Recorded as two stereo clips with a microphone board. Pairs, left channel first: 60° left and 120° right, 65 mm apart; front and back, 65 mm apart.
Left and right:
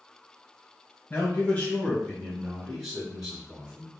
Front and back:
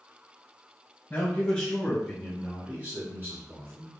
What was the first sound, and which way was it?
A man speaking, 35° left.